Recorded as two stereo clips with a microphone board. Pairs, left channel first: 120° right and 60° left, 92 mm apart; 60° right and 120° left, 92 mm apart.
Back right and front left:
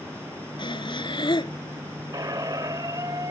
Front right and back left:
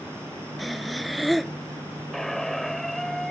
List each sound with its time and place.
0.6 s breathing: 150° right
2.1 s a squeak: 25° left